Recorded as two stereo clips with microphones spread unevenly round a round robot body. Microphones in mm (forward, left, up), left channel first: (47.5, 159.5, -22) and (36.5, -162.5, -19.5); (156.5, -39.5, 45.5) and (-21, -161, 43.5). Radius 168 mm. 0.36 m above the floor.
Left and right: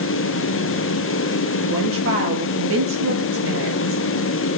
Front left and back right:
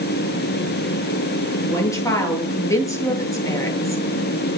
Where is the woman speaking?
40° right, 9.5 m.